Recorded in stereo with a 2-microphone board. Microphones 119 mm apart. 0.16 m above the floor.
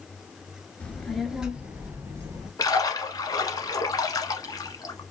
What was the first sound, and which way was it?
A child speaking, 10° left (ahead or behind).